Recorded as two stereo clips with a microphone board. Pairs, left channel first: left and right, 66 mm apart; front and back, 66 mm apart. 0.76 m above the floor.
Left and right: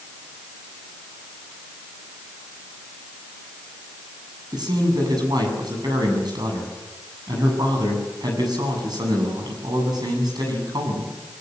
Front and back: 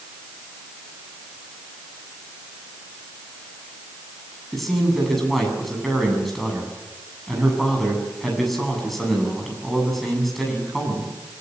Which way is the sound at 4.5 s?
90° right.